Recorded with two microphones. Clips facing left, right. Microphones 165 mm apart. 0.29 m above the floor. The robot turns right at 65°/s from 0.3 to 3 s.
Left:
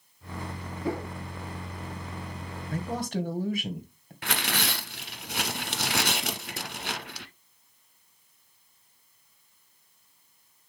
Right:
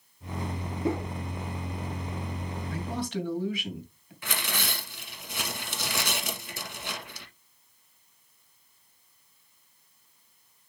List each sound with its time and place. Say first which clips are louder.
0.8 s a whoosh: right 2 dB; 25° right (ahead or behind), 1.7 m; by 1.1 s 10° right (ahead or behind), 1.7 m
2.7 s a man speaking: left 2 dB; 45° left (ahead or behind), 2.0 m
4.2 s tearing paper: left 3 dB; 65° left (ahead or behind), 1.1 m